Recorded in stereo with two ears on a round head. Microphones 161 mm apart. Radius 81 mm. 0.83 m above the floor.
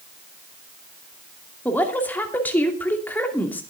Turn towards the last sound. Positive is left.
turn(degrees=10)  # may be behind; listen again after turning